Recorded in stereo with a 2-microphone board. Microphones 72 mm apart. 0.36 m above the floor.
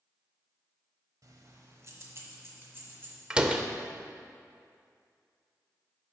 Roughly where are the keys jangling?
Right.